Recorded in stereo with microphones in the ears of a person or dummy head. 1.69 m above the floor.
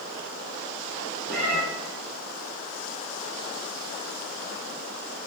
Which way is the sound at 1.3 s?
20° left (ahead or behind).